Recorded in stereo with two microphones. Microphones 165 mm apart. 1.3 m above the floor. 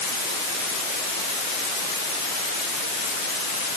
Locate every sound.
Only background noise.